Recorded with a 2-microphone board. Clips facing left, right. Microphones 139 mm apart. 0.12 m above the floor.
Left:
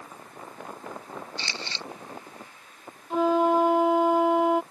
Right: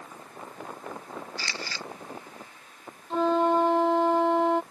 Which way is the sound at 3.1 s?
5° left (ahead or behind).